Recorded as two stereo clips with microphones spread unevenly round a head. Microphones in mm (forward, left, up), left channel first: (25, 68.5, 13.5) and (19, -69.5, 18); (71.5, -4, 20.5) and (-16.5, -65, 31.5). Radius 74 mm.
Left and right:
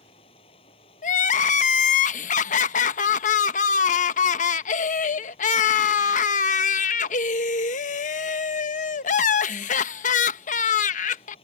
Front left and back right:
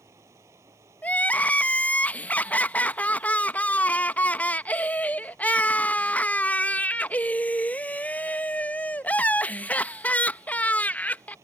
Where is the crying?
110° left.